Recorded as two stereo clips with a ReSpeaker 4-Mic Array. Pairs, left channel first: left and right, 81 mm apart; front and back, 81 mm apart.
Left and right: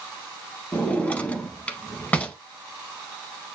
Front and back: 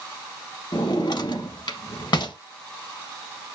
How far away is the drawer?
About 0.7 m.